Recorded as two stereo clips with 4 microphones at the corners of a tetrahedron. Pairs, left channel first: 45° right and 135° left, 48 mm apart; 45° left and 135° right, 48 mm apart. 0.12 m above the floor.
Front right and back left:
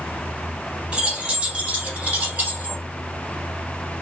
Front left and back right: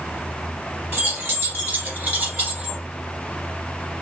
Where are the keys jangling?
165° right, 2 m; by 2.8 s 165° left, 1.5 m.